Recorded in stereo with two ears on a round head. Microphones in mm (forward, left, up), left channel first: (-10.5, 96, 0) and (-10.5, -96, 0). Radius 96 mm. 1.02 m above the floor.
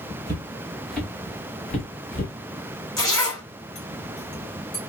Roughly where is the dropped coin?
I don't hear a dropped coin.